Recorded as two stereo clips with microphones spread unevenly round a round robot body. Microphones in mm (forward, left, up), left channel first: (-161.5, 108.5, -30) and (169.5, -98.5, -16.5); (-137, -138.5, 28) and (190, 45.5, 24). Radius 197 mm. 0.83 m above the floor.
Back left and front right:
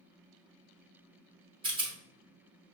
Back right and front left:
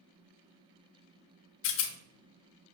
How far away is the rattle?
About 0.5 m.